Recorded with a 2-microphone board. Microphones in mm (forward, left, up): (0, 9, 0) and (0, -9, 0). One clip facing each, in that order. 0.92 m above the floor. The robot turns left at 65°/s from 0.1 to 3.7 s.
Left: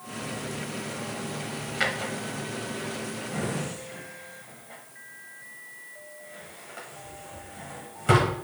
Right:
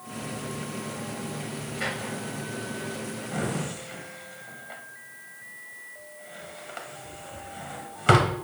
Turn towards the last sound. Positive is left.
turn(degrees=-40)  # may be behind; listen again after turning